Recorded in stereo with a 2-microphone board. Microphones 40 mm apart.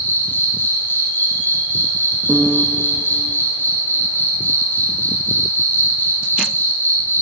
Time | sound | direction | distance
0.0 | an insect | 65° left (ahead or behind) | 2 m
2.3 | a piano | 25° right (ahead or behind) | 0.6 m